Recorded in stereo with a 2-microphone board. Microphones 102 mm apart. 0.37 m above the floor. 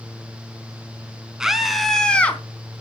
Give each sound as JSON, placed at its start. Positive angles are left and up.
{"t": 1.4, "sound": "a scream", "side_deg": -5, "distance_m": 3.5}